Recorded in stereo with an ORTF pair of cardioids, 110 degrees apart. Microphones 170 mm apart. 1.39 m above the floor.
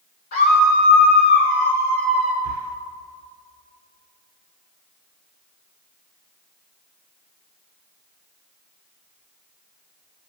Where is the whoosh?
No whoosh in this recording.